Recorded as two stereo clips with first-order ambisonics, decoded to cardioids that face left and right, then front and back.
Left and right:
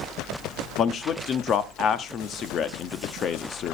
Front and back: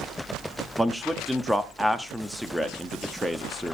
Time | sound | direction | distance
0.8 | a man speaking | 100° left | 0.9 m